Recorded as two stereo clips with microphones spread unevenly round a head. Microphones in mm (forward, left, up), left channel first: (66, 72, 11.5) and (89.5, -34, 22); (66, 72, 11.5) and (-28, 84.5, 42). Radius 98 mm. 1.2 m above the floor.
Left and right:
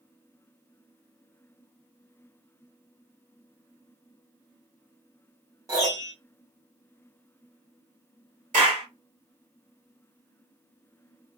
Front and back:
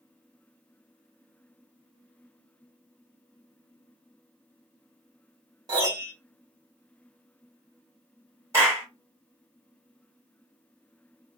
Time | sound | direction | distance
5.7 | a piano | 140° right | 1.0 m
8.5 | a clap | 115° right | 1.4 m